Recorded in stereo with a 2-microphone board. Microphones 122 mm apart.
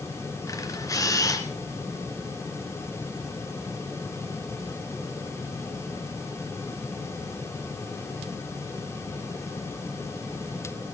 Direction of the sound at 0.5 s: 30° left (ahead or behind).